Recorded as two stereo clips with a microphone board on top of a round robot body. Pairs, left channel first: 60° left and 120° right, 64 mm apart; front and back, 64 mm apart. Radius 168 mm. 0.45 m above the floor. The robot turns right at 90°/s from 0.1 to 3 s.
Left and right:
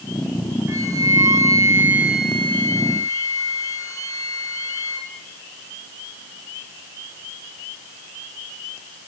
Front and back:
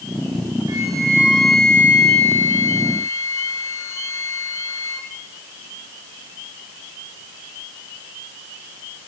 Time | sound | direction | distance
0.7 | a flute | 165° right | 5.5 m